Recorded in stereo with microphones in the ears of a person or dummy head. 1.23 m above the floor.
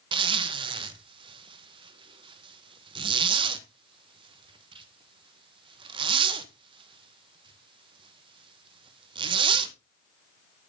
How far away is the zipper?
About 1.2 m.